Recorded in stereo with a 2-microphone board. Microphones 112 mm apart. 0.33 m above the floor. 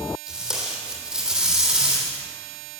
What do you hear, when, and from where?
0.3 s tape being pulled: 5° right (ahead or behind), 3 m